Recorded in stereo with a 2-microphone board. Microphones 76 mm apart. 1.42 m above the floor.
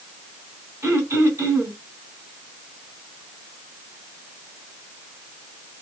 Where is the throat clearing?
35° right (ahead or behind), 1.5 m.